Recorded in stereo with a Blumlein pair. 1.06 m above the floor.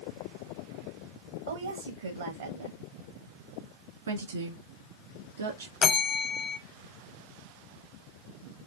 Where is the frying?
I don't hear frying.